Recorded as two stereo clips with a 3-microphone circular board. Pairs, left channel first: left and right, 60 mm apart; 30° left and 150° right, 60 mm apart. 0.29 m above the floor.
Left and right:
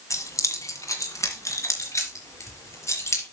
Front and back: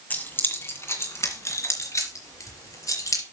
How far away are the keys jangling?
About 1.7 m.